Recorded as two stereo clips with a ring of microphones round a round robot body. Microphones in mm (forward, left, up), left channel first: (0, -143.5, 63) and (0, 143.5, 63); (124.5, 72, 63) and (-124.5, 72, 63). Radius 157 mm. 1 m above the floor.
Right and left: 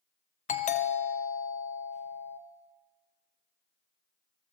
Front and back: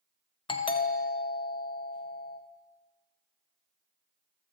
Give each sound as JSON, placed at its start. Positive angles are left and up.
{"t": 0.5, "sound": "a doorbell", "azimuth_deg": -50, "distance_m": 0.7}